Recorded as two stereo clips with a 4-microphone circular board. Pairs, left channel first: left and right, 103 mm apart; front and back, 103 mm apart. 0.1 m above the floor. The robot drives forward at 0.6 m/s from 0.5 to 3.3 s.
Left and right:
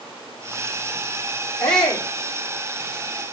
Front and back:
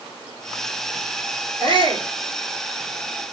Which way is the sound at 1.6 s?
170° left.